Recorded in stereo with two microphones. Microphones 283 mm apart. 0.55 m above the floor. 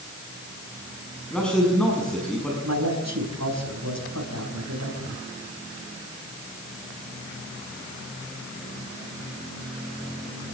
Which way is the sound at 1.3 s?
5° left (ahead or behind).